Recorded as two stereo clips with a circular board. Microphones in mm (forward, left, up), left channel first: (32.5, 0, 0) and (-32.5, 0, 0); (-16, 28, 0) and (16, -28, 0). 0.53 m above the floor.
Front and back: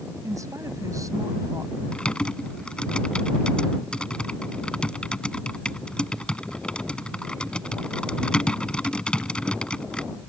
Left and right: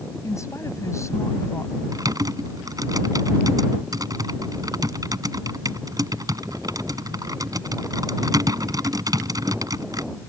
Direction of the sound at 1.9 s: 75° right.